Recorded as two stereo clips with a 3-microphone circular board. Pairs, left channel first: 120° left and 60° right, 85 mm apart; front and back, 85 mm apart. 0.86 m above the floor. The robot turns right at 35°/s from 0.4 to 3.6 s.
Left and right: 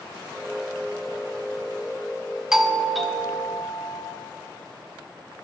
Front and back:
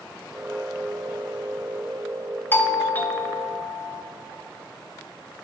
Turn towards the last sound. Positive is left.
turn(degrees=55)